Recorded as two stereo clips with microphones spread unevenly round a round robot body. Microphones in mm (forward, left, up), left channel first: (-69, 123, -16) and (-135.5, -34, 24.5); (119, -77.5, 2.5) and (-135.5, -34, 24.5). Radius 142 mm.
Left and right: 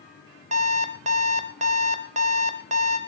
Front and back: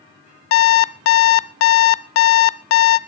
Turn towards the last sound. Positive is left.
turn(degrees=-45)